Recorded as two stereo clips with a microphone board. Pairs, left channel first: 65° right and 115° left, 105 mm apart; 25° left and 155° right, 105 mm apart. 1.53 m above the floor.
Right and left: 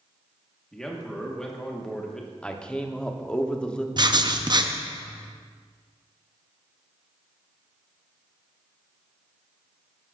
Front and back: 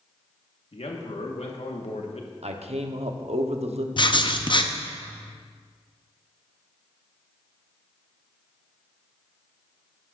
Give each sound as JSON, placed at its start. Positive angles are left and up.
{"t": 0.7, "sound": "a man speaking", "azimuth_deg": 15, "distance_m": 1.3}
{"t": 2.4, "sound": "a man speaking", "azimuth_deg": -150, "distance_m": 0.8}
{"t": 4.0, "sound": "writing", "azimuth_deg": 65, "distance_m": 0.6}